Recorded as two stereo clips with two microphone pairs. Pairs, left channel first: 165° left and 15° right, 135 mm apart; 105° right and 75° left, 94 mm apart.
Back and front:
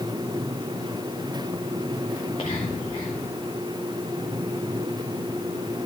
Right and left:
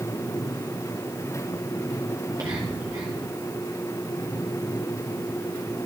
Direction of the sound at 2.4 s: 120° left.